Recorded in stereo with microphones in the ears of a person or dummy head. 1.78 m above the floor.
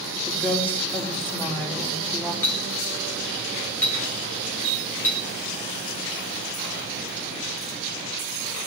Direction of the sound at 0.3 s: 10° left (ahead or behind).